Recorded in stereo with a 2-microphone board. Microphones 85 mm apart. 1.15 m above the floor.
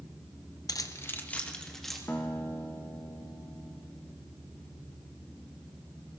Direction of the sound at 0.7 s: 50° left (ahead or behind).